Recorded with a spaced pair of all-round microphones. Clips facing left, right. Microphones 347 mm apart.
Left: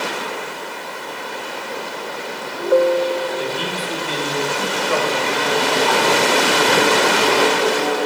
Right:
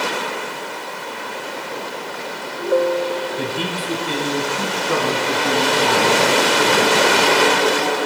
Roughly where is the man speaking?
Right.